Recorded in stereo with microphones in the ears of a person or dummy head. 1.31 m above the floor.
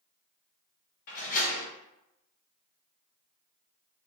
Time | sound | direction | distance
1.1 | a door slam | 50° left (ahead or behind) | 1.0 m